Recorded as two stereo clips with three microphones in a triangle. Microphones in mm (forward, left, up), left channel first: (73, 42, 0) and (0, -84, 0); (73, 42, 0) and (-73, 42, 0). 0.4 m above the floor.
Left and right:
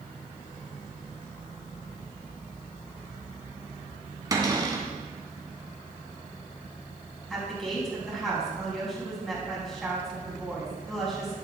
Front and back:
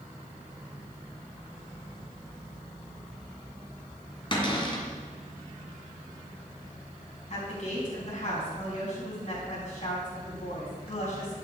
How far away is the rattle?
No rattle in this recording.